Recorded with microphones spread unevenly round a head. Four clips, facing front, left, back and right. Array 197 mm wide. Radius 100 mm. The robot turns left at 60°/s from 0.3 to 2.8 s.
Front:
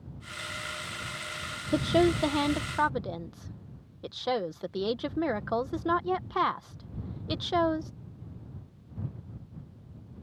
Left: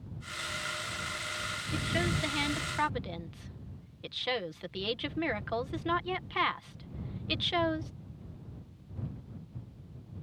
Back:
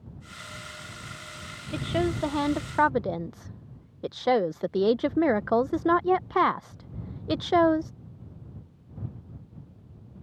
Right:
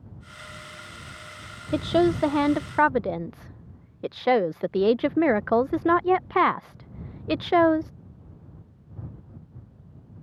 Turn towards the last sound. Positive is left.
turn(degrees=-120)